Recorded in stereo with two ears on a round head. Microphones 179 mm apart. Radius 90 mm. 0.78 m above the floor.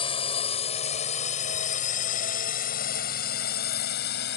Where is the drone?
30° left (ahead or behind); by 4.4 s 55° left (ahead or behind).